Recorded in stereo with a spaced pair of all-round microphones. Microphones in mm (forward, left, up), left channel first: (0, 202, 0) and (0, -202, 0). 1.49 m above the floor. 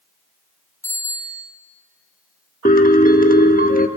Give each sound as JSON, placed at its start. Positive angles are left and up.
{"t": 0.8, "sound": "a bicycle bell", "side_deg": 5, "distance_m": 5.0}
{"t": 2.6, "sound": "a piano", "side_deg": 20, "distance_m": 1.0}